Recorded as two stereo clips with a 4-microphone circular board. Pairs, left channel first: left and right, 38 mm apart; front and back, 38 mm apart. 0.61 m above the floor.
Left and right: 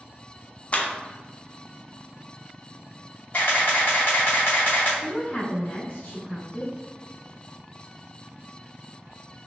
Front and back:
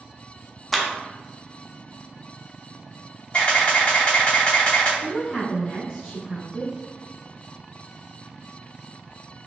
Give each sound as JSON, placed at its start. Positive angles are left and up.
{"t": 0.7, "sound": "a clap", "azimuth_deg": 85, "distance_m": 0.6}
{"t": 3.3, "sound": "a camera shutter", "azimuth_deg": 50, "distance_m": 1.9}
{"t": 5.0, "sound": "a woman speaking", "azimuth_deg": 45, "distance_m": 1.0}